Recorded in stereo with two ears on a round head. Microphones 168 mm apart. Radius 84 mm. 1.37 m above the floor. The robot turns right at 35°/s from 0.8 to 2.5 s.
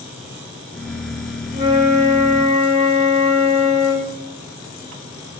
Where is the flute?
40° right, 1.3 m; by 4.2 s 5° right, 1.3 m.